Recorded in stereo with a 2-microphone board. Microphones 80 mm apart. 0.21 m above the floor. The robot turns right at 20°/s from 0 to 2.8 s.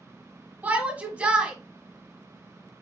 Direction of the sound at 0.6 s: 20° right (ahead or behind).